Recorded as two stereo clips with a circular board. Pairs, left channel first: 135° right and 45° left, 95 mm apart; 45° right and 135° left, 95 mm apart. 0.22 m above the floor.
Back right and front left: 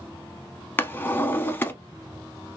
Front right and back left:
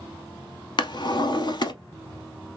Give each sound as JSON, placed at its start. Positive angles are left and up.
{"t": 0.8, "sound": "a drawer", "azimuth_deg": -70, "distance_m": 0.7}